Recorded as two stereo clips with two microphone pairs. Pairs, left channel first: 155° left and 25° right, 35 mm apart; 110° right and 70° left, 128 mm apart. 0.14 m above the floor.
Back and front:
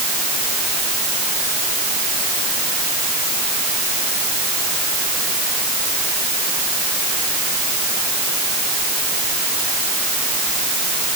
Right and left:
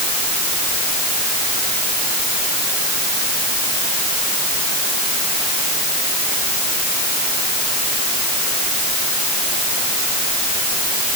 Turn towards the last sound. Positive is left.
No sound to turn to.